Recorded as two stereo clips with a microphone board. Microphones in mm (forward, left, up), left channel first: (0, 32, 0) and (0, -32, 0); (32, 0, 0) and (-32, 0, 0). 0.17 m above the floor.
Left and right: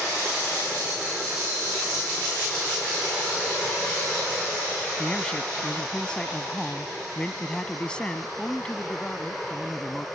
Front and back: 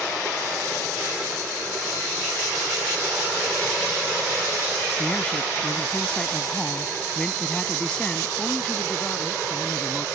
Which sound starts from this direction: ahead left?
A man speaking, at 5.0 s.